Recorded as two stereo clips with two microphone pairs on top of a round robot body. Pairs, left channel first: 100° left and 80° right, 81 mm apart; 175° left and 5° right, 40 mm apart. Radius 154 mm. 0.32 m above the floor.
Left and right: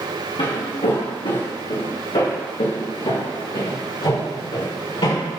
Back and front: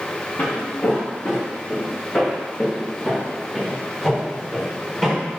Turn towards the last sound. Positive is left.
turn(degrees=95)